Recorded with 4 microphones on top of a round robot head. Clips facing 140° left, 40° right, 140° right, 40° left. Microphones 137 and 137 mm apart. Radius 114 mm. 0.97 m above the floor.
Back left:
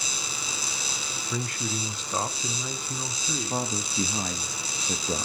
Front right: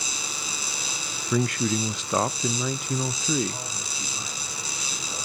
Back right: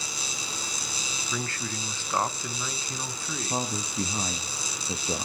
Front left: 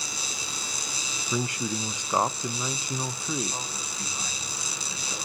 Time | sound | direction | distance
1.3 | a man speaking | 35° right | 0.7 m
3.5 | a man speaking | 175° left | 1.2 m